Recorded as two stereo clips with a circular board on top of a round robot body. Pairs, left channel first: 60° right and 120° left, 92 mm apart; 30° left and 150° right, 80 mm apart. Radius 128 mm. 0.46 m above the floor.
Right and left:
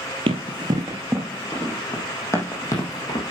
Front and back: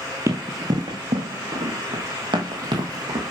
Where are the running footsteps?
145° left, 0.8 m; by 3.3 s 110° right, 1.7 m.